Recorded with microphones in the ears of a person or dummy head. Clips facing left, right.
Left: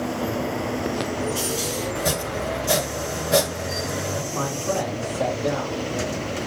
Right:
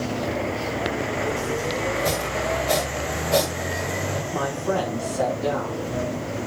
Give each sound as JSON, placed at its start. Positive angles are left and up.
{"t": 1.9, "sound": "chopping", "side_deg": 15, "distance_m": 2.5}
{"t": 4.3, "sound": "a man speaking", "side_deg": -75, "distance_m": 5.5}